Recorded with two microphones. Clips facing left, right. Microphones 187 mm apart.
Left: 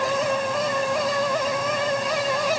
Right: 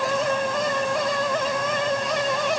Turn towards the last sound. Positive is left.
No sound to turn to.